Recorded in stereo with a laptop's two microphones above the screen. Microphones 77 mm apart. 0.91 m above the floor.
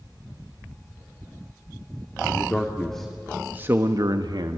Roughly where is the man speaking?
Centre.